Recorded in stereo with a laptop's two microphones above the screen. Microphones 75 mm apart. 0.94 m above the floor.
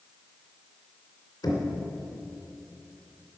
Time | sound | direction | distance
1.4 | knocking | 75° left (ahead or behind) | 2.5 m